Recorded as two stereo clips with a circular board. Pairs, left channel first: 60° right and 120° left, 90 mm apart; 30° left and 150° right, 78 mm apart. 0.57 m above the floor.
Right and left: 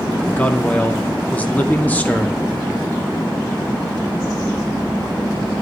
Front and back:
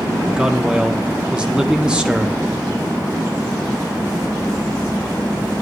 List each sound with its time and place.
0.3 s a man speaking: 95° right, 0.9 m